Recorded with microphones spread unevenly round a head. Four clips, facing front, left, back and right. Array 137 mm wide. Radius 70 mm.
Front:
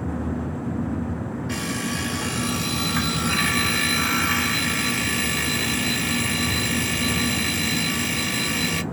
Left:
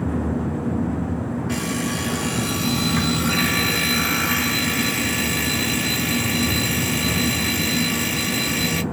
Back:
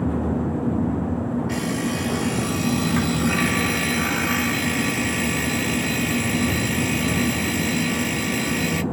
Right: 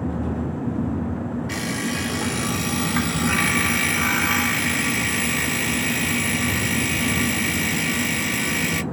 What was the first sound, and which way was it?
An alarm clock, 65° right.